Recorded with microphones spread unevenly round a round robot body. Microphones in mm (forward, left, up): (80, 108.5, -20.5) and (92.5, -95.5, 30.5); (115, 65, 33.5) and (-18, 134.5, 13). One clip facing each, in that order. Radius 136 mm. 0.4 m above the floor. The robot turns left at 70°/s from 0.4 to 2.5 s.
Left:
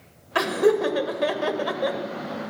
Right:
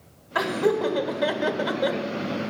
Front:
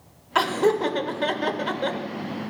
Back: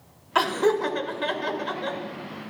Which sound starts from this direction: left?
Laughter, at 0.3 s.